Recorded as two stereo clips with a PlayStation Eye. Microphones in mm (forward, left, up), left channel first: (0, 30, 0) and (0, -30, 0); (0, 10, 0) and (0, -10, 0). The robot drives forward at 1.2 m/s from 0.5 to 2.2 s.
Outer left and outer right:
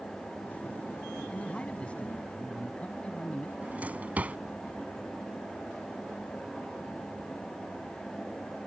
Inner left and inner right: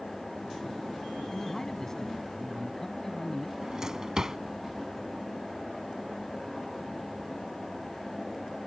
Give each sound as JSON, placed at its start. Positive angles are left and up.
{"t": 1.3, "sound": "a man speaking", "side_deg": 20}
{"t": 3.6, "sound": "a drawer", "side_deg": -25}